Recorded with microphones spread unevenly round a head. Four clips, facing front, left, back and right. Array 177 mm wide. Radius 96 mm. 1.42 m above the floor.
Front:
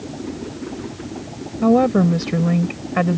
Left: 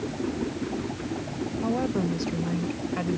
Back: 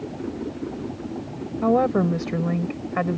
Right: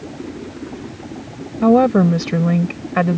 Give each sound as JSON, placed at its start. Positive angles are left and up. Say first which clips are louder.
{"t": 1.6, "sound": "a woman speaking", "louder": "right 15 dB, front 5 dB", "azimuth_deg": -65}